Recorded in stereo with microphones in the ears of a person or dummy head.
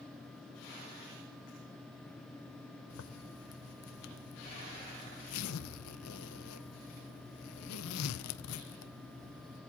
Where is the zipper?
85° left, 0.8 m.